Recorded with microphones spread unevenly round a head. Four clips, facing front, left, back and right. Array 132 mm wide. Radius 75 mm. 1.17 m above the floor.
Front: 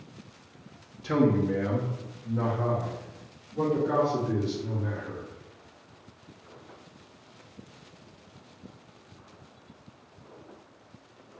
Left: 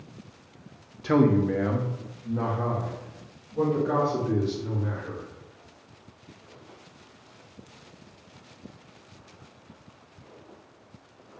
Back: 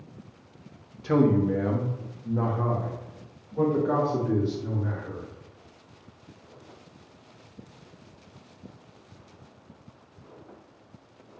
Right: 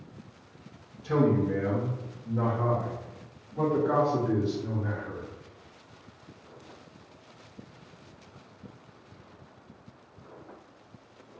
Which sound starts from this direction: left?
A man speaking, at 1.0 s.